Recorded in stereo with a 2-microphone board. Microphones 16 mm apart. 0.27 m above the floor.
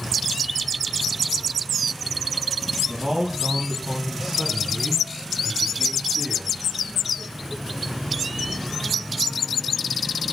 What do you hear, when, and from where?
2.9 s a man speaking: 35° right (ahead or behind), 2.5 m; by 6.6 s centre (ahead or behind), 4 m